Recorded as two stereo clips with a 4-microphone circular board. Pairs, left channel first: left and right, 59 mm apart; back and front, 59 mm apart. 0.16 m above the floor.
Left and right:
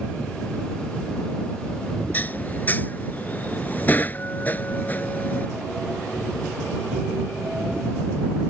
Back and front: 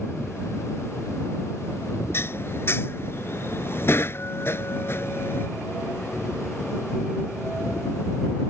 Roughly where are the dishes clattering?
Behind left.